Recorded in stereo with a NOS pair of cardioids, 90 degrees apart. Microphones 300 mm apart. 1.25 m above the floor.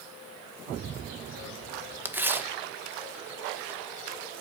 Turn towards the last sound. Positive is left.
turn(degrees=-5)